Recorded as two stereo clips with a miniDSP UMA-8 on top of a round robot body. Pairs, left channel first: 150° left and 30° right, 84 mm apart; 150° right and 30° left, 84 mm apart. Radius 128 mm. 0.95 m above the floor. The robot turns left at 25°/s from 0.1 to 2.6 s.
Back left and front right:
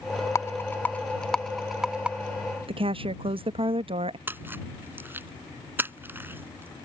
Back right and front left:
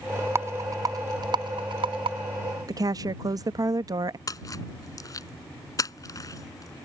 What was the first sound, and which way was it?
A rattle, 90° left.